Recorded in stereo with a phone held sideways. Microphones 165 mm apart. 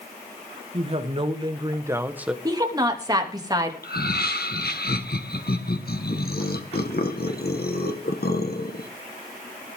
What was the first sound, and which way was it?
A woman speaking, 40° right (ahead or behind).